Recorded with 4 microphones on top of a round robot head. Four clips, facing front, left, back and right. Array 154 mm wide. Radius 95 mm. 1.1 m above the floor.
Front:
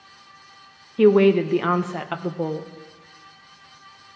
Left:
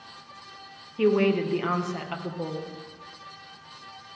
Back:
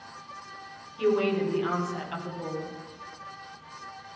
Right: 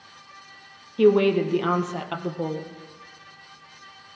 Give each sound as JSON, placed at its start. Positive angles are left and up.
{"t": 1.0, "sound": "a woman speaking", "azimuth_deg": -20, "distance_m": 0.9}